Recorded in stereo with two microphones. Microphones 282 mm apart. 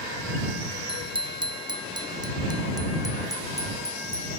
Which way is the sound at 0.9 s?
20° right (ahead or behind).